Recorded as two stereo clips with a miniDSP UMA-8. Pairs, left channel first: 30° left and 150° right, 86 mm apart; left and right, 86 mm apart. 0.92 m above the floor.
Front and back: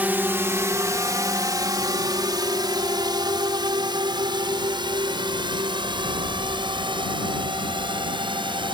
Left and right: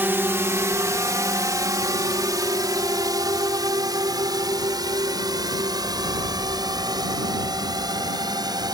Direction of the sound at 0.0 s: 110° right.